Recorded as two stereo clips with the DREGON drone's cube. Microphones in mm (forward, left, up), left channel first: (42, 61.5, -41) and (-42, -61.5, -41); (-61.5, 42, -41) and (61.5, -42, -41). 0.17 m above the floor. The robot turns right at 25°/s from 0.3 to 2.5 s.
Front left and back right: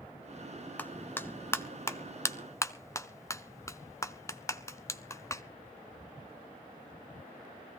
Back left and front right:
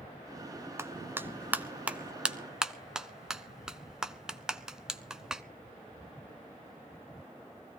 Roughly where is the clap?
Ahead.